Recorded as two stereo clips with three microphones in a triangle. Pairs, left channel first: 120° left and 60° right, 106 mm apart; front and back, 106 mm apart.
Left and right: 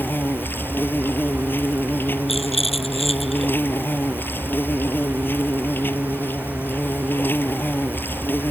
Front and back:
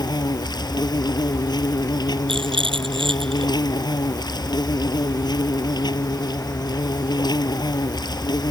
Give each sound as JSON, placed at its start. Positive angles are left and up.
{"t": 0.0, "sound": "an insect", "azimuth_deg": 50}
{"t": 2.3, "sound": "a rattle", "azimuth_deg": 145}